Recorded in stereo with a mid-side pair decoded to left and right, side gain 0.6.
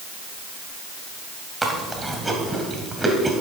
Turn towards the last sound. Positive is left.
turn(degrees=-15)